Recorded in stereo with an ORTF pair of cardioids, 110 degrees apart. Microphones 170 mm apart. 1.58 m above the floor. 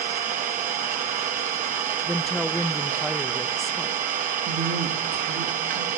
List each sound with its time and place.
0.0 s an engine running: 55° right, 1.0 m
2.1 s a woman speaking: straight ahead, 0.5 m
4.5 s a woman speaking: 65° right, 3.5 m